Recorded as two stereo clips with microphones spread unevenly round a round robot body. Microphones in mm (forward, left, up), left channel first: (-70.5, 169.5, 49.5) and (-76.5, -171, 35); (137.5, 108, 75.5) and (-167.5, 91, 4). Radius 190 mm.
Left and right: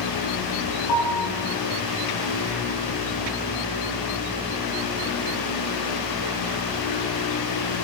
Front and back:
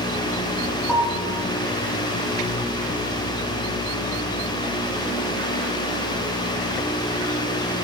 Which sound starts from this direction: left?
A piano, at 0.9 s.